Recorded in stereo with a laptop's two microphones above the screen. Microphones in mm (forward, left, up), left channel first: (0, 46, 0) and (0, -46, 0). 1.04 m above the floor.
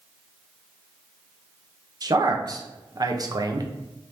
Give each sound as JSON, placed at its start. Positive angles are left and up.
{"t": 2.0, "sound": "a man speaking", "side_deg": -45, "distance_m": 0.7}